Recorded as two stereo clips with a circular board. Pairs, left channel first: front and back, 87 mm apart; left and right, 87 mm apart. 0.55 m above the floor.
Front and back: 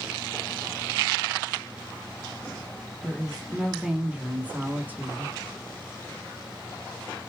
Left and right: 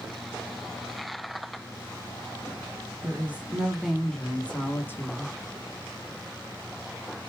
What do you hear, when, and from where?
3.0 s a woman speaking: 100° right, 1.1 m; by 5.3 s 125° left, 1.3 m